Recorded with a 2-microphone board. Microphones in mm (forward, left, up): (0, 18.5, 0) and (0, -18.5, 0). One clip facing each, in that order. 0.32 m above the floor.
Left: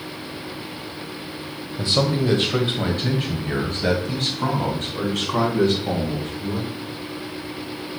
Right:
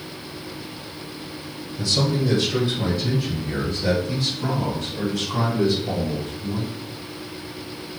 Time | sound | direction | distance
1.8 | a man speaking | 30° left (ahead or behind) | 1.5 m